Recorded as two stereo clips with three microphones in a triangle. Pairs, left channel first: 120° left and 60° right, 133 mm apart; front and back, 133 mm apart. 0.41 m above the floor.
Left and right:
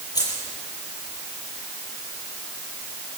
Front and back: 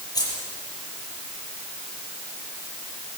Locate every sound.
0.1 s keys jangling: 60° left, 8.5 m